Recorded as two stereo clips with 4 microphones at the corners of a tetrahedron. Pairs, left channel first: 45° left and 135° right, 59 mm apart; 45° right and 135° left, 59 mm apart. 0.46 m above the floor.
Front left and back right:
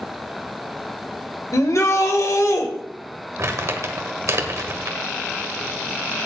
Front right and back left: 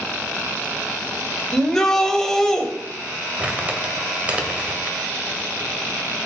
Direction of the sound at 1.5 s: 35° left.